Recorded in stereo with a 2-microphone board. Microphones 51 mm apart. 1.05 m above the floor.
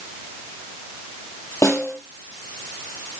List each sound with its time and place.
1.6 s a snare drum: 65° left (ahead or behind), 5 m